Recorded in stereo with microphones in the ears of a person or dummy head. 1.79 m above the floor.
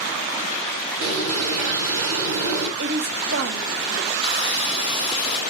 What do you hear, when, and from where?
1.0 s a bird: 65° right (ahead or behind), 3.5 m
2.8 s a woman speaking: 60° right (ahead or behind), 2 m
4.2 s sawing: 35° left (ahead or behind), 1.4 m